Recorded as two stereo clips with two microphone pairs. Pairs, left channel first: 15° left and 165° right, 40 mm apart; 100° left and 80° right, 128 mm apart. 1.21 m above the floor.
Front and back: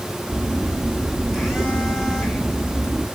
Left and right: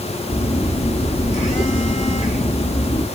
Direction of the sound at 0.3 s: 105° left.